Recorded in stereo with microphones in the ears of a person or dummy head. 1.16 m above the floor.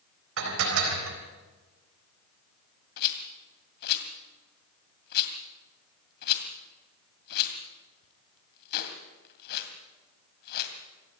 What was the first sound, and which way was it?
Dishes clattering, 80° right.